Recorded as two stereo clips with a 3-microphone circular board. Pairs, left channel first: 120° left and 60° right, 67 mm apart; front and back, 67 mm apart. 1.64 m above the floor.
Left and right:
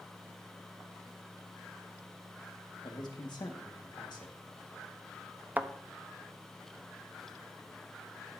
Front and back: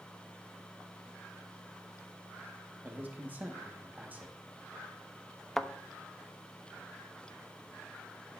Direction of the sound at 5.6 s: 80° right.